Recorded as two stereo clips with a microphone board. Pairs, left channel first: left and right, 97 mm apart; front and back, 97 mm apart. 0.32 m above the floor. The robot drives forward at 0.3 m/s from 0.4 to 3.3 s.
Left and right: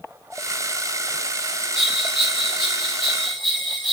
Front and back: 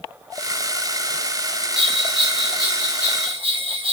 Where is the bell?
175° right, 0.8 m.